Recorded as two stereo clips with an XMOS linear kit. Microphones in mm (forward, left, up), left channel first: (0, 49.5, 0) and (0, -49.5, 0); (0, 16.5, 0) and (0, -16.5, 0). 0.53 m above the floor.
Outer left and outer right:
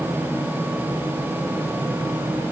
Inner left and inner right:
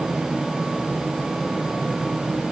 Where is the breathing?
I don't hear breathing.